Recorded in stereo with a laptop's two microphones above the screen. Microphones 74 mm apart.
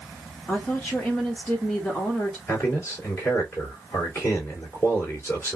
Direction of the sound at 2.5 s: 30° left (ahead or behind).